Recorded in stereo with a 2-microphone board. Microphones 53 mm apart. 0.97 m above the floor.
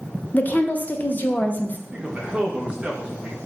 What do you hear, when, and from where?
0.3 s a woman speaking: 30° left (ahead or behind), 0.5 m
1.9 s a man speaking: 20° right (ahead or behind), 1.1 m